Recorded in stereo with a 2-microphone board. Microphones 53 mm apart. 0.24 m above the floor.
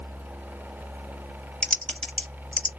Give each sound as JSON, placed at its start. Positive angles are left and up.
{"t": 1.6, "sound": "typing on a keyboard", "side_deg": 20, "distance_m": 0.7}